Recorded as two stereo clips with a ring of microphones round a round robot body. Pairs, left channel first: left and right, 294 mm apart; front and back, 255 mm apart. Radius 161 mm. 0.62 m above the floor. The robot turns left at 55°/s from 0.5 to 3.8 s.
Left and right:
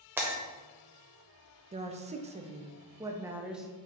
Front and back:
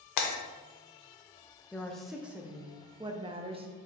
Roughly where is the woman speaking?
Right.